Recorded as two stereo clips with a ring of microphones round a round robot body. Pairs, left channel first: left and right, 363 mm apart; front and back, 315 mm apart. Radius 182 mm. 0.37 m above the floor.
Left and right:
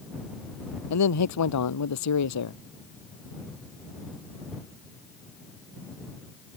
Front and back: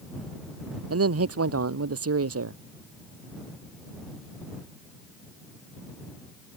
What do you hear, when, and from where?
0.9 s a man speaking: 135° left